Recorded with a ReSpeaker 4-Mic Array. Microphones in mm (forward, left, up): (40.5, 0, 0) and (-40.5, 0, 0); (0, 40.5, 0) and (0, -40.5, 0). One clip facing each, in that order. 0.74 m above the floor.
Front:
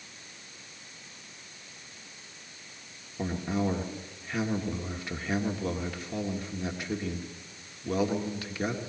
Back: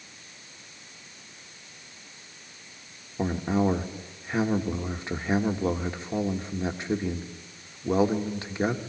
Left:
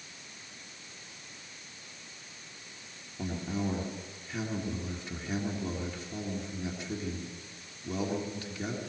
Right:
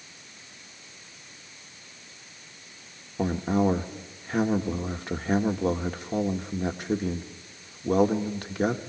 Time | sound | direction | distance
3.2 | a man speaking | 120° right | 1.4 m